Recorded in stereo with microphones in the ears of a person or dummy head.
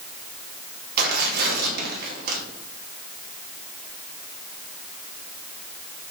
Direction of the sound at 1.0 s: 50° right (ahead or behind).